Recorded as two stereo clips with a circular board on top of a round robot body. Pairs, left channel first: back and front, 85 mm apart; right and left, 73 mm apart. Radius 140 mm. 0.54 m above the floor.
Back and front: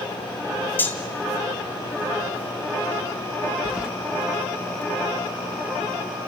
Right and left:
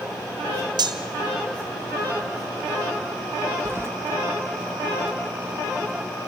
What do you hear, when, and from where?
0.8 s cutlery clinking: 110° left, 1.9 m
3.6 s keys jangling: 75° left, 0.5 m